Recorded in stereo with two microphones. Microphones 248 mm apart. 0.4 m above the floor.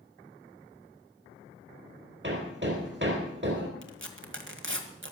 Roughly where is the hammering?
Right.